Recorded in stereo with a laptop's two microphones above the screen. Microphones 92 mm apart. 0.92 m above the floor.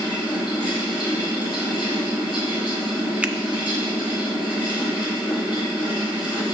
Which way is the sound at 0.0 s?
60° left (ahead or behind).